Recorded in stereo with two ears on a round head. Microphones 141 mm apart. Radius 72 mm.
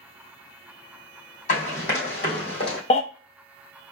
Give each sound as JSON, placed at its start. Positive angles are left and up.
{"t": 1.5, "sound": "running footsteps", "side_deg": 50, "distance_m": 3.0}
{"t": 2.9, "sound": "a baby crying", "side_deg": 40, "distance_m": 0.5}